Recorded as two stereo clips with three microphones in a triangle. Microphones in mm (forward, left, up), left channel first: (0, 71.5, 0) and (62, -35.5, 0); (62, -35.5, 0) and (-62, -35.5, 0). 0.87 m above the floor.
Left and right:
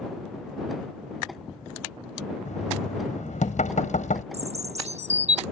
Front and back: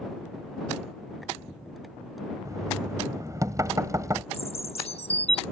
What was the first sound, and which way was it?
Knocking, 115° left.